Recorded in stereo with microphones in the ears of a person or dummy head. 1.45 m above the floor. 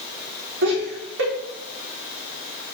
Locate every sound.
0.6 s laughter: 65° right (ahead or behind), 3.5 m